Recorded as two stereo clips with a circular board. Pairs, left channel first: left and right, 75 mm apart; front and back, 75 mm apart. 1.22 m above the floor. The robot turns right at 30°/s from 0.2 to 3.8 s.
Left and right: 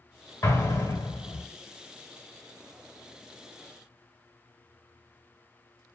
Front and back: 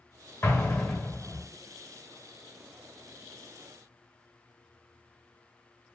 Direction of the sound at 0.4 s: 45° left.